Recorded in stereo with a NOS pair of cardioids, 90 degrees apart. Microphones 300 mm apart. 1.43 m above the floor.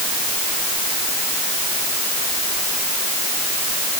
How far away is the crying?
No crying in this recording.